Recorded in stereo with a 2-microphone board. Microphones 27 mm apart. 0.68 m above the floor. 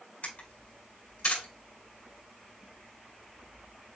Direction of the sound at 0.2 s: 65° left (ahead or behind).